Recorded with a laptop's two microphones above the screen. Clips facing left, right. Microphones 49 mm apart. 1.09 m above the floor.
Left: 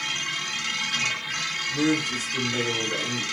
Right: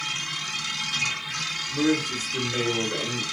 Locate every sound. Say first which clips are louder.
0.0 s a machine running: left 2 dB; 45° left (ahead or behind), 1.3 m
1.7 s a man speaking: even; 15° left (ahead or behind), 1.0 m